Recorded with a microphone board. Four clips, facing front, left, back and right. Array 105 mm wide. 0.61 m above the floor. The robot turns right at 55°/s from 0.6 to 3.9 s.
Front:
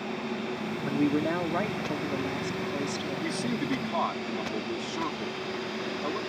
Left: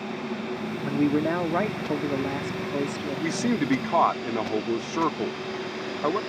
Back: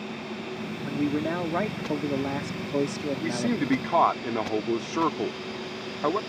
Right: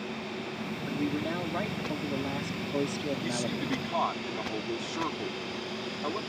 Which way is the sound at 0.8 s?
65° left.